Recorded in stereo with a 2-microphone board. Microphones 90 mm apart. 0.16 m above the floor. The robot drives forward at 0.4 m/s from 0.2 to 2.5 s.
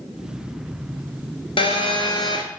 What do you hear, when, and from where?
1.6 s a phone buzzing: 70° left (ahead or behind), 0.6 m; by 2.4 s 60° left (ahead or behind), 0.7 m